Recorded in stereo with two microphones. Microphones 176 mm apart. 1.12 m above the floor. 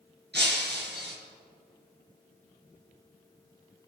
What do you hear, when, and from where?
0.3 s breaking glass: 75° right (ahead or behind), 4 m